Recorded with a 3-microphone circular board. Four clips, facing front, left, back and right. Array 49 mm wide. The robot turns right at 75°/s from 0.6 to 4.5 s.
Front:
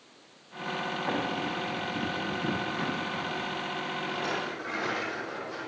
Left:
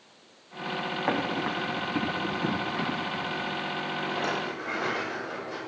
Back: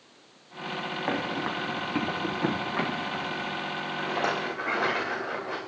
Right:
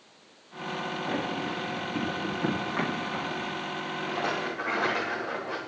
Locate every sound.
1.1 s running footsteps: 110° left, 5 m; by 3.5 s 85° right, 5.5 m
4.0 s a rattle: 175° left, 6 m; by 5.6 s 150° right, 6 m